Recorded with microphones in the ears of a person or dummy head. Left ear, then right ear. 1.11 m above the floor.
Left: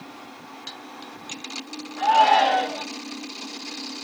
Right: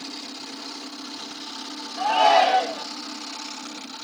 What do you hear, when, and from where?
2.0 s a shout: 30° right (ahead or behind), 4.5 m